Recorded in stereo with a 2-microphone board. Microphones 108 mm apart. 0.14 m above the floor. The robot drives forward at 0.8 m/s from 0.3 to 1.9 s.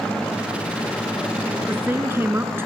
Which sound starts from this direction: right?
A woman speaking, at 1.7 s.